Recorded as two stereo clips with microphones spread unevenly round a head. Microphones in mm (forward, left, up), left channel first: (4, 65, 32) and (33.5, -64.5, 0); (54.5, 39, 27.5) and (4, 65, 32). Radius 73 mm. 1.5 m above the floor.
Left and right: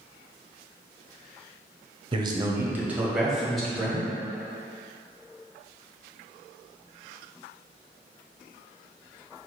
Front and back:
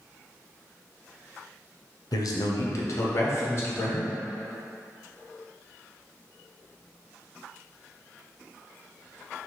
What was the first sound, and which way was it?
A man speaking, 25° right.